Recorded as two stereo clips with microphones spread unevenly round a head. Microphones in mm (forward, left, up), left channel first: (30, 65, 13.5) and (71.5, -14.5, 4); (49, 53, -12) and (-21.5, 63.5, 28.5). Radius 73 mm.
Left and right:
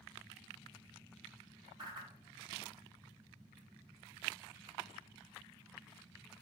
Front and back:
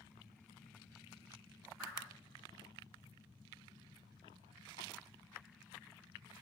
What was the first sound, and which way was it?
A whoosh, 70° right.